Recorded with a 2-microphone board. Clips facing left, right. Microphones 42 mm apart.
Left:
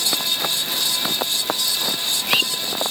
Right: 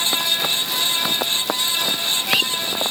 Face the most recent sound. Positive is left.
No sound to turn to.